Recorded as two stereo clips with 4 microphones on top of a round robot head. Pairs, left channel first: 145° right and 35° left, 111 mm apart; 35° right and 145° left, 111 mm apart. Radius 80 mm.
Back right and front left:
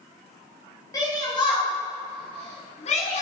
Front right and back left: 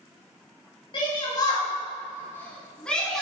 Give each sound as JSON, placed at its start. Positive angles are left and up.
{"t": 0.9, "sound": "a shout", "azimuth_deg": -85, "distance_m": 4.0}